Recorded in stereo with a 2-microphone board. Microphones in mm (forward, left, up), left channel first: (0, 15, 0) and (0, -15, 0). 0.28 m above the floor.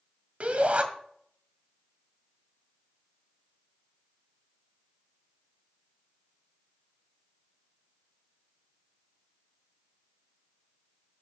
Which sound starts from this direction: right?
A shout, at 0.4 s.